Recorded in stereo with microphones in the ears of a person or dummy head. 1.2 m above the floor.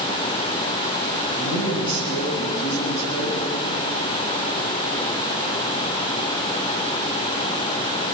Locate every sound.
1.4 s a man speaking: 75° left (ahead or behind), 8 m